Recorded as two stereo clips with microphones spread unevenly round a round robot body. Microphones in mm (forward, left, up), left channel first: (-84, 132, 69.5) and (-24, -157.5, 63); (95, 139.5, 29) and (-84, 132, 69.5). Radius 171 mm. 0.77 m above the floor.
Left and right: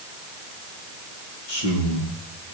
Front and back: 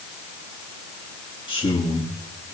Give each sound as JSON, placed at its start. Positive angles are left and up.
{"t": 1.5, "sound": "a man speaking", "azimuth_deg": 65, "distance_m": 9.0}